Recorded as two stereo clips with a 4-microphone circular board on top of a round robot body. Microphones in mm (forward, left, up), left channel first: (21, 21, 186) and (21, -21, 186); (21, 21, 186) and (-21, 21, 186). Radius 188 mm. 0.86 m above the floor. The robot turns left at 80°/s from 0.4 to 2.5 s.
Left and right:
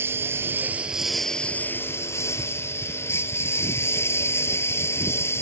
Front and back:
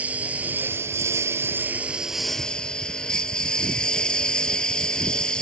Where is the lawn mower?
120° right; by 5.4 s 70° left.